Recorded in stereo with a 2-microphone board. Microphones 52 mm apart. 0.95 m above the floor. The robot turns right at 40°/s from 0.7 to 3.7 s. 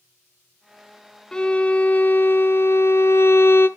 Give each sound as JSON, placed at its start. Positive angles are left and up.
{"t": 1.3, "sound": "a violin", "azimuth_deg": 15, "distance_m": 0.6}